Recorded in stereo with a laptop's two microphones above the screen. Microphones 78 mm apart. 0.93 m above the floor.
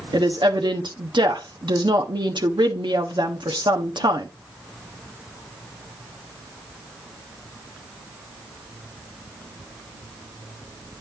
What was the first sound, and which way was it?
A woman speaking, 75° right (ahead or behind).